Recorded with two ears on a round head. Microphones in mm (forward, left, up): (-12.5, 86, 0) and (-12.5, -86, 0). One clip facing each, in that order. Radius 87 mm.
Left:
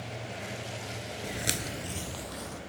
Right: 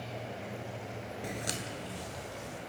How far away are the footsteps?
About 0.6 m.